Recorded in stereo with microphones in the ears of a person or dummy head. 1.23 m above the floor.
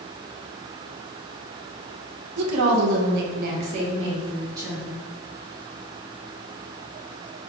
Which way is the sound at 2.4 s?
85° right.